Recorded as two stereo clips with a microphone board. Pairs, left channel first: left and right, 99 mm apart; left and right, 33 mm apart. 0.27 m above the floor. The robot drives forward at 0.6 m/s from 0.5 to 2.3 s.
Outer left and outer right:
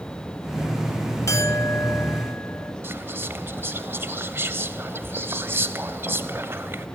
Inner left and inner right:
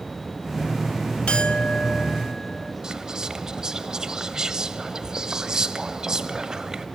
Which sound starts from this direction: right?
Whispering, at 2.8 s.